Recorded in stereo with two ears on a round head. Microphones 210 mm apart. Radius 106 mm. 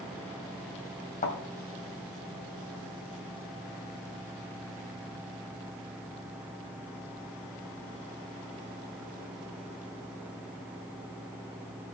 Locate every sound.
1.2 s a thud: 35° left (ahead or behind), 3 m